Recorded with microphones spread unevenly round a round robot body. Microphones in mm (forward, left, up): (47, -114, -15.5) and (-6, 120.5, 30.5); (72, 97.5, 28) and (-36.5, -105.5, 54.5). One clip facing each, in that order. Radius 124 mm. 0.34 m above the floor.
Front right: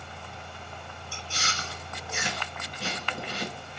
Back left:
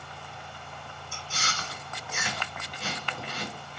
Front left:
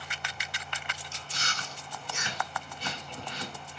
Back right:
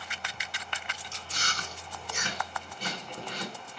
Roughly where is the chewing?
Right.